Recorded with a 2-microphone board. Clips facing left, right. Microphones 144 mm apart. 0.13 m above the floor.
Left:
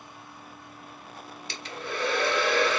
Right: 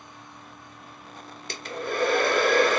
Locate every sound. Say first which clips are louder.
1.5 s a hair dryer: right 5 dB; 55° right (ahead or behind), 0.5 m